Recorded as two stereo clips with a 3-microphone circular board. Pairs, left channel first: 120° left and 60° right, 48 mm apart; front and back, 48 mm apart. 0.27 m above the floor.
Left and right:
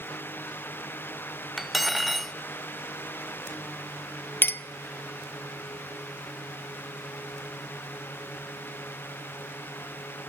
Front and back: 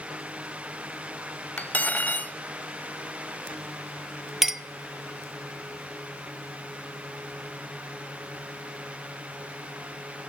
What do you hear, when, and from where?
1.6 s cutlery clinking: 25° left, 0.8 m
4.4 s a clink: 100° left, 0.8 m